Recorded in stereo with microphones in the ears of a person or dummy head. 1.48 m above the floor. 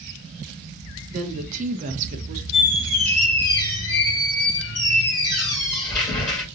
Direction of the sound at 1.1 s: 45° right (ahead or behind).